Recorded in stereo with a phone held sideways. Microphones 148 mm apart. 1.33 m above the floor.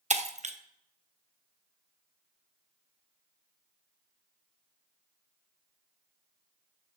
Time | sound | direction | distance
0.1 | breaking glass | 50° right (ahead or behind) | 0.7 m